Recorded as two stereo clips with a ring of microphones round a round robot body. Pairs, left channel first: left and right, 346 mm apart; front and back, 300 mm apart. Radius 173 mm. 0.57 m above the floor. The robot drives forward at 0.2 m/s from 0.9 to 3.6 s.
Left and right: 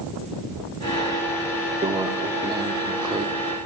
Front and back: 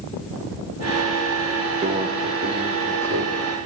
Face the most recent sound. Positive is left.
turn(degrees=-165)